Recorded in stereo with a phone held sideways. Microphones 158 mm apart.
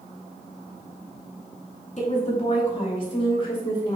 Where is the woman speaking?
45° left (ahead or behind), 2.5 m; by 4.0 s 25° left (ahead or behind), 3 m.